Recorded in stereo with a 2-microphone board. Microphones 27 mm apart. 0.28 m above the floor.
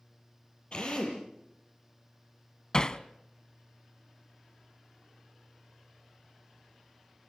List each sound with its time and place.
0.7 s a drill: 45° left (ahead or behind), 5.5 m
2.7 s hammering: 30° left (ahead or behind), 0.8 m